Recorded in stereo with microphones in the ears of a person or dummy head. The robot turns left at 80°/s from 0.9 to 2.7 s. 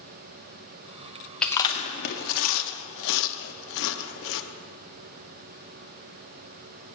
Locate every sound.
1.4 s chewing: 5° left (ahead or behind), 0.7 m; by 4.4 s 70° left (ahead or behind), 0.7 m